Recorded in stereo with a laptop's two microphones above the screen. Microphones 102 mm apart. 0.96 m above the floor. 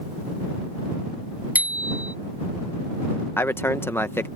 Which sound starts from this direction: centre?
A bicycle bell, at 1.6 s.